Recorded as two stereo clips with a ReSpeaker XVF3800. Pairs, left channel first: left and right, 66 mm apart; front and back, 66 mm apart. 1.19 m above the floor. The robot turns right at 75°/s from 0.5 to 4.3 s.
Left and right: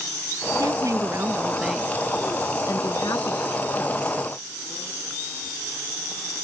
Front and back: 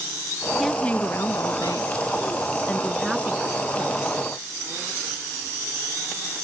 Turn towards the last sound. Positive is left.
turn(degrees=-175)